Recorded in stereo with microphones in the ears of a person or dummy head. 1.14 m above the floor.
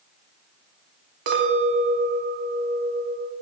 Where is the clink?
65° right (ahead or behind), 1.0 m.